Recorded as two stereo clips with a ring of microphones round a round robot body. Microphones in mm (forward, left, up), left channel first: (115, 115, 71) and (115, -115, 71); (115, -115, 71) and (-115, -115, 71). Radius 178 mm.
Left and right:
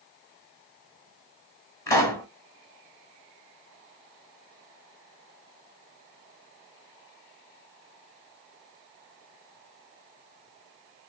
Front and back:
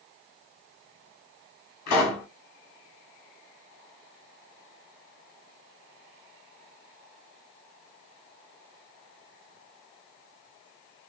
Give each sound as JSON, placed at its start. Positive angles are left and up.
{"t": 1.9, "sound": "a pop", "azimuth_deg": 15, "distance_m": 0.8}